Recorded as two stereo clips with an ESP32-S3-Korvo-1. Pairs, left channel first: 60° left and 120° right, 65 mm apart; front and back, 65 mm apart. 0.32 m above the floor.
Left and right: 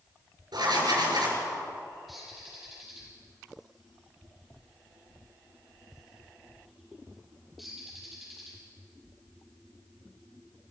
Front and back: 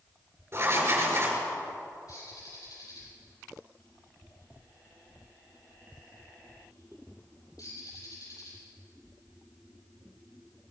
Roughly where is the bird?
Ahead right.